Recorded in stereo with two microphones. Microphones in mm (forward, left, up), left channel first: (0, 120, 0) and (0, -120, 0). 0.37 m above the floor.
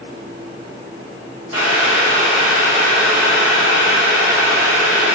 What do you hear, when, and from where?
1.5 s boiling: 70° left (ahead or behind), 1.8 m